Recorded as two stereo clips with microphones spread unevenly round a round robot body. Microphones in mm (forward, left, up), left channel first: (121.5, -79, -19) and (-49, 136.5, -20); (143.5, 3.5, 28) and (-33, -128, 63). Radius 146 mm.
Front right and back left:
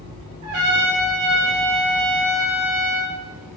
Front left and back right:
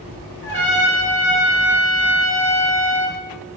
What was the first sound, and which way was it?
A trumpet, 115° left.